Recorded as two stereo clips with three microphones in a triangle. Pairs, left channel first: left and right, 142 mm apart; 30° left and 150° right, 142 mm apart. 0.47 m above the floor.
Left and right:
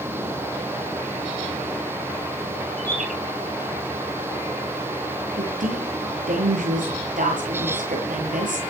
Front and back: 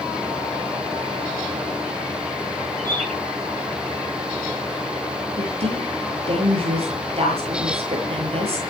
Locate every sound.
2.8 s a bird: 105° left, 6.5 m
5.4 s a woman speaking: 105° right, 8.5 m